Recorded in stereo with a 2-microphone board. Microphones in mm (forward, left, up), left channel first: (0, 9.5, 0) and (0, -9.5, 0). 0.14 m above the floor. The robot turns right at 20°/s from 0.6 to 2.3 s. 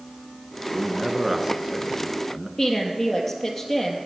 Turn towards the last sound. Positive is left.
turn(degrees=5)  # may be behind; listen again after turning